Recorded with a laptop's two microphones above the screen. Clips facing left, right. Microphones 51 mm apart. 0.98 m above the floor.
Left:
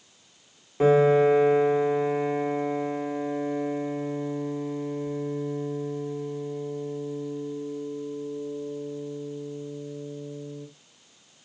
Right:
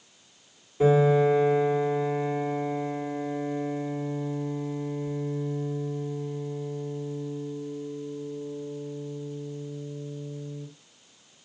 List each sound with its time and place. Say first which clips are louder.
0.8 s a piano: left 2 dB; 45° left (ahead or behind), 1.9 m